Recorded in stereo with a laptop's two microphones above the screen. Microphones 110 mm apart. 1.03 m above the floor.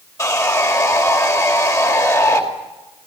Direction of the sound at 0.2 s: 30° left (ahead or behind).